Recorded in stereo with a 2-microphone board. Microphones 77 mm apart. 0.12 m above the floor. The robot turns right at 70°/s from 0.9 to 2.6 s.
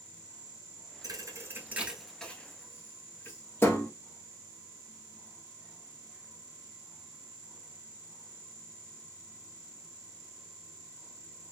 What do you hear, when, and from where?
1.0 s a thud: 50° right (ahead or behind), 1.1 m; by 3.9 s 30° left (ahead or behind), 1.1 m